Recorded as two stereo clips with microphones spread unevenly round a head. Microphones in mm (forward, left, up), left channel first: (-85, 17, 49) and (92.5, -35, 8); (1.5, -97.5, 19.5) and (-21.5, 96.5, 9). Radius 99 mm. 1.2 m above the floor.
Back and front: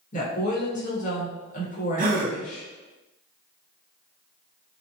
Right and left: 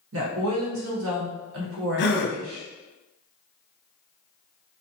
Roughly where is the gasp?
Ahead right.